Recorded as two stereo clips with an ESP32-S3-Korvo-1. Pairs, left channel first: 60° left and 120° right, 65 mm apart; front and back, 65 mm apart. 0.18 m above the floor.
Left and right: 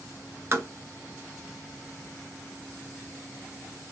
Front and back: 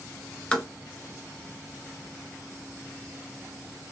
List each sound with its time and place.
0.5 s tapping: 70° right, 1.1 m